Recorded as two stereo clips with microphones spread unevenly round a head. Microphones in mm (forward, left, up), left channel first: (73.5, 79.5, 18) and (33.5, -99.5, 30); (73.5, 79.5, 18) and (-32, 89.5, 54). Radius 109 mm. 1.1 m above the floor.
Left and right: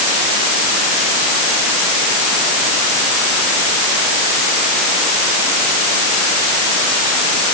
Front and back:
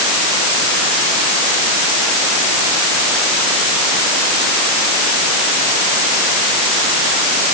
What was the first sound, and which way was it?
Only background noise.